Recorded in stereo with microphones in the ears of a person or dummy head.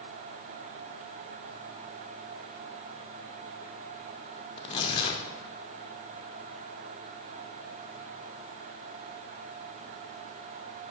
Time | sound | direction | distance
4.6 | tearing paper | 15° left (ahead or behind) | 0.7 m